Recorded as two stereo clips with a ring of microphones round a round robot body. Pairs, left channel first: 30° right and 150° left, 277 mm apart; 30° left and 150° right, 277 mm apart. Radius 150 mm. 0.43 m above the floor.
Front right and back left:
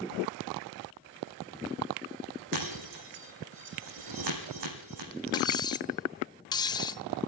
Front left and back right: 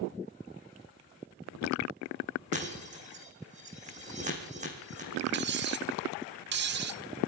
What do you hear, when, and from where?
2.5 s breaking glass: 145° left, 4.5 m
5.3 s cutlery clinking: 105° right, 0.9 m